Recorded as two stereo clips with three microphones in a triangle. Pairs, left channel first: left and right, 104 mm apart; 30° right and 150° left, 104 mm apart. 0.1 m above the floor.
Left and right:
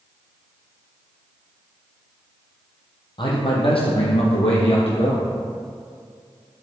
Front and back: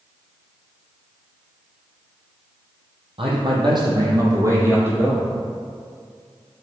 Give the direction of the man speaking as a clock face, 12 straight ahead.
8 o'clock.